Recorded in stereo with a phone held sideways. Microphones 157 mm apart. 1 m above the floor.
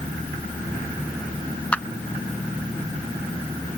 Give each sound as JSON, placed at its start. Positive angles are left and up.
{"t": 1.7, "sound": "a clap", "side_deg": 10}